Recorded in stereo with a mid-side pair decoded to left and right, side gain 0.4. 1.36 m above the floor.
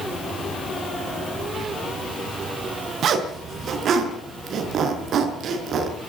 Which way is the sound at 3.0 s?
70° right.